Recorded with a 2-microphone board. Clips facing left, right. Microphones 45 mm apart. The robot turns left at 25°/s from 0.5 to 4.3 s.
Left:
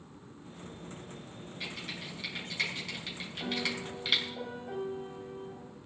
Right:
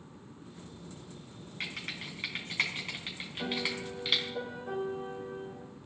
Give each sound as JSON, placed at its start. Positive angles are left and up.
{"t": 1.6, "sound": "typing on a keyboard", "side_deg": -65, "distance_m": 4.0}
{"t": 3.4, "sound": "a piano", "side_deg": -40, "distance_m": 7.0}